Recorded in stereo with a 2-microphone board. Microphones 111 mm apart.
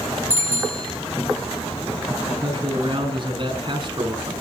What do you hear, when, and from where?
0.3 s a bicycle bell: 75° left (ahead or behind), 5.5 m
2.3 s a man speaking: 45° right (ahead or behind), 4.5 m